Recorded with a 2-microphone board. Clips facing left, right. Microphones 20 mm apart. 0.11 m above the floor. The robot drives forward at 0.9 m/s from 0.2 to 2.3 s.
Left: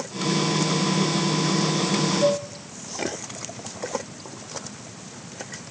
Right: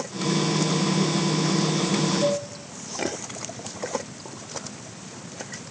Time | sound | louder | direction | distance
2.2 | dishes clattering | left 2 dB | 30° left (ahead or behind) | 6.5 m